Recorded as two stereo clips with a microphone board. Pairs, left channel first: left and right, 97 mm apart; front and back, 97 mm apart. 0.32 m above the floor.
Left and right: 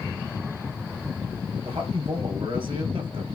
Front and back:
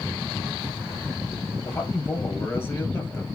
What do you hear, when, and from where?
1.6 s a man speaking: 60° right, 6.5 m